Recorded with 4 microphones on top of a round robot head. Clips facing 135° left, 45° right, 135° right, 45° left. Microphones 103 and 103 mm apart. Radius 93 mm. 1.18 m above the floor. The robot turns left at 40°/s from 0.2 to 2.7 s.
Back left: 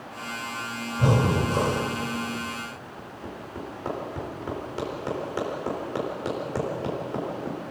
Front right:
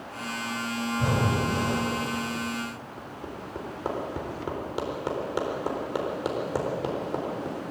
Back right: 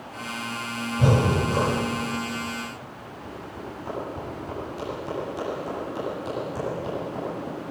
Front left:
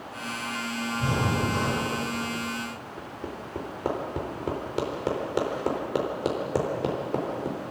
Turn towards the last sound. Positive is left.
turn(degrees=30)